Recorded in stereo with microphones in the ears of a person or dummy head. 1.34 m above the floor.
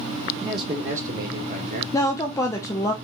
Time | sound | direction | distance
0.4 | a man speaking | 15° right (ahead or behind) | 0.6 m
1.9 | a woman speaking | 15° left (ahead or behind) | 0.5 m